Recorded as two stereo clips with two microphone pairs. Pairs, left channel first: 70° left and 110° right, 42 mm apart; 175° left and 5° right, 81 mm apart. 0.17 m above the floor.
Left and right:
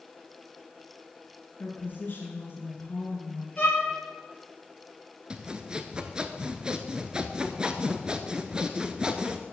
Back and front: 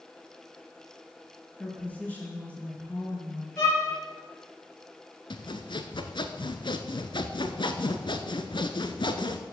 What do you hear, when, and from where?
1.6 s a woman speaking: 105° left, 2.5 m
3.6 s a violin: 120° left, 3.5 m
5.3 s sawing: straight behind, 0.8 m